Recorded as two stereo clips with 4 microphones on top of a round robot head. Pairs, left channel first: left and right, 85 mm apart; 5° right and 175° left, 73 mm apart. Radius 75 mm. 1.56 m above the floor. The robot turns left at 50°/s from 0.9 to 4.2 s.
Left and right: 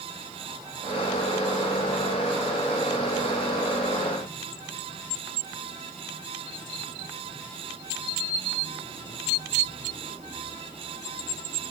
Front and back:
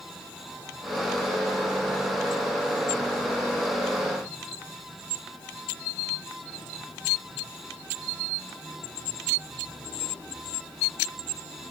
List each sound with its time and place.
Only background noise.